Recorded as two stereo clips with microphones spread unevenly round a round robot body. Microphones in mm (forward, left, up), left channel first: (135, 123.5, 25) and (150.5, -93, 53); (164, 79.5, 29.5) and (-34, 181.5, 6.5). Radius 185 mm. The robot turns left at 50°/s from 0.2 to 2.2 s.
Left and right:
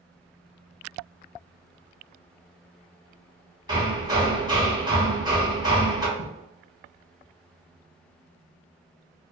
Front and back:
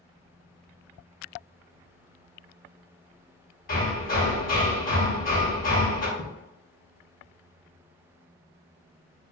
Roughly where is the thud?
Left.